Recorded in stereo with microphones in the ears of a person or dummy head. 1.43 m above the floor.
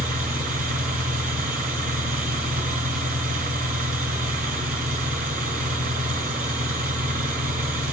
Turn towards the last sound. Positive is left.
turn(degrees=-40)  # may be behind; listen again after turning